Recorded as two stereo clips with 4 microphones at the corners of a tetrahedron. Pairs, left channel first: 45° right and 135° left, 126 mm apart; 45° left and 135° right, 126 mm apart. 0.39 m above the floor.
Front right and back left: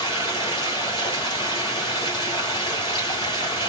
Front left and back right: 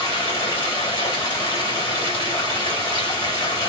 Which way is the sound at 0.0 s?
Straight ahead.